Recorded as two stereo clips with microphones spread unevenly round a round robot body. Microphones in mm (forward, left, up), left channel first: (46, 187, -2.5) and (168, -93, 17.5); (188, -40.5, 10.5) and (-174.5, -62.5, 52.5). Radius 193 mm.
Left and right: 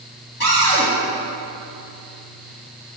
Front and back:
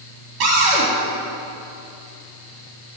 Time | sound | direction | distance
0.4 | a cupboard door | straight behind | 3 m